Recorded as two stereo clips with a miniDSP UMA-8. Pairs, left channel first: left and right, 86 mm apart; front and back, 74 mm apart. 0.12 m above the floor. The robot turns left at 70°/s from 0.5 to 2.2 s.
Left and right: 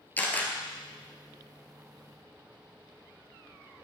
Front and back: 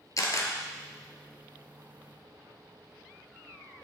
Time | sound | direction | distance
0.2 | a camera shutter | 25° left | 1.6 m